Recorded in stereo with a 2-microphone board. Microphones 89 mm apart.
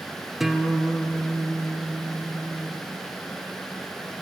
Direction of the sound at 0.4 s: 5° right (ahead or behind).